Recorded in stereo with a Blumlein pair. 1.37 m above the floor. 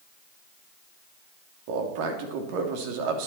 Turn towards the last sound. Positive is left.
turn(degrees=-45)